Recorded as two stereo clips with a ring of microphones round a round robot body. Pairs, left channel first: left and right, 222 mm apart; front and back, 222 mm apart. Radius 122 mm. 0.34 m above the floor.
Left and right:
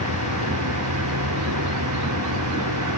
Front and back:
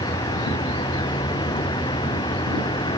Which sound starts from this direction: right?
A vehicle, at 0.0 s.